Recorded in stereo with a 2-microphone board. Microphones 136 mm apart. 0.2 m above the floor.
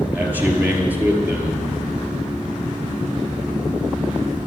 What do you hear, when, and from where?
0.1 s a man speaking: 15° right (ahead or behind), 5 m